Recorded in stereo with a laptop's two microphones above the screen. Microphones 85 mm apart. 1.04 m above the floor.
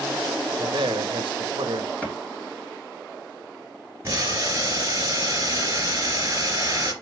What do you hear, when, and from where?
0.6 s a man speaking: 75° right (ahead or behind), 1.1 m
2.0 s a clap: 15° left (ahead or behind), 1.5 m
4.0 s boiling: 30° right (ahead or behind), 3 m